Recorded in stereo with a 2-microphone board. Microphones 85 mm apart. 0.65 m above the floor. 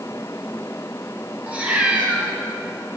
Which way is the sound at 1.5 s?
15° right (ahead or behind).